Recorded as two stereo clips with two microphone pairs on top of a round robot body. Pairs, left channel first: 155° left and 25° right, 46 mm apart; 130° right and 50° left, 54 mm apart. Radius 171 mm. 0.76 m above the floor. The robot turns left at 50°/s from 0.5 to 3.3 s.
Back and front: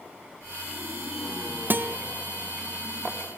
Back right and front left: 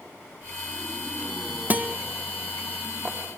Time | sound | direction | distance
1.7 | a guitar | 10° right | 0.6 m